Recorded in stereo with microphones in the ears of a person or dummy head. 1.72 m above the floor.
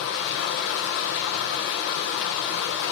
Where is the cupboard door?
I don't hear a cupboard door.